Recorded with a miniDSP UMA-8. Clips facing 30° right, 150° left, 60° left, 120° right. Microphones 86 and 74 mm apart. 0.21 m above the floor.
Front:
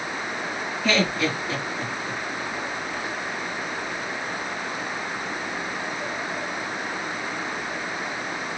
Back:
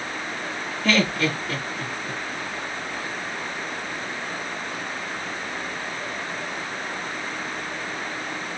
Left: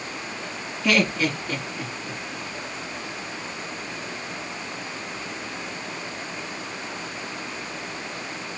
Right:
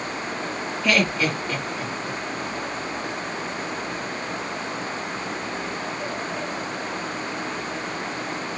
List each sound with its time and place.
0.8 s laughter: 125° left, 2.5 m